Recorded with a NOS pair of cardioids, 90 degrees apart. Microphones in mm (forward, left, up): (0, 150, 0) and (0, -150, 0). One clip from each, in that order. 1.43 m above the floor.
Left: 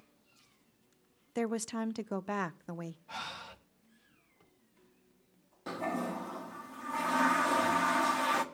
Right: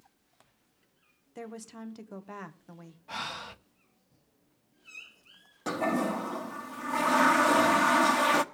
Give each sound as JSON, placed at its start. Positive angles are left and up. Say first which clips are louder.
{"t": 1.4, "sound": "a woman speaking", "louder": "left 8 dB", "azimuth_deg": 45, "distance_m": 0.7}
{"t": 3.1, "sound": "breathing", "louder": "right 7 dB", "azimuth_deg": -30, "distance_m": 0.9}
{"t": 5.7, "sound": "a toilet flushing", "louder": "right 7 dB", "azimuth_deg": -45, "distance_m": 1.2}